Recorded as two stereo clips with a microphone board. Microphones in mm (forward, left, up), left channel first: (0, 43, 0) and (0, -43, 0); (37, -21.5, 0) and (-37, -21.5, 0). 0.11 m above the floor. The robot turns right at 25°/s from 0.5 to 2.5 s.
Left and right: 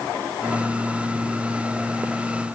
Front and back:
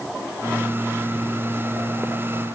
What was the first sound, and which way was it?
Only background noise.